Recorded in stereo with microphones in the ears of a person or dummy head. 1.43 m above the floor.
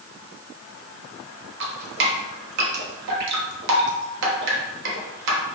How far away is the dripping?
About 1.0 m.